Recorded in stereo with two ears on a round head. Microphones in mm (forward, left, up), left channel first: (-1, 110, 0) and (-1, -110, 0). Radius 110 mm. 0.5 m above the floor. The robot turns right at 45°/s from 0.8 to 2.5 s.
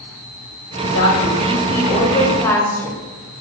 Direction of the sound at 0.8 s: 95° left.